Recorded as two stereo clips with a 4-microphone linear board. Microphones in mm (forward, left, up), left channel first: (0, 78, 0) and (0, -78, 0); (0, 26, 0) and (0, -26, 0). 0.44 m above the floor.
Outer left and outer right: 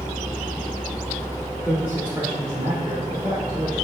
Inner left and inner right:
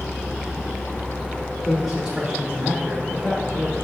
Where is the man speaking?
5° right (ahead or behind), 1.5 m; by 3.8 s 40° right (ahead or behind), 1.4 m.